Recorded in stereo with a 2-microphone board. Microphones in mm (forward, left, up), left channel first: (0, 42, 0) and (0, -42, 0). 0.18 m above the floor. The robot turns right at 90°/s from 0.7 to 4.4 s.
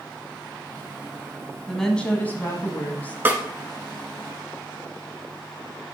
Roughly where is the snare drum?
Right.